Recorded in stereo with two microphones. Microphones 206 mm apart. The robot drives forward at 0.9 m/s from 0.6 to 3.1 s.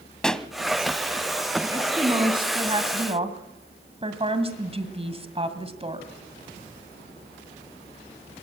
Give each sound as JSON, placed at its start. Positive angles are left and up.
{"t": 0.2, "sound": "a pop", "side_deg": 5, "distance_m": 0.9}
{"t": 1.6, "sound": "a woman speaking", "side_deg": -20, "distance_m": 3.0}